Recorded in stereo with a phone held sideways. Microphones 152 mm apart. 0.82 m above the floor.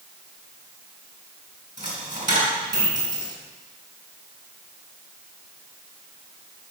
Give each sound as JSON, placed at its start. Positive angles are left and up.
{"t": 1.8, "sound": "a dropped coin", "side_deg": -55, "distance_m": 4.0}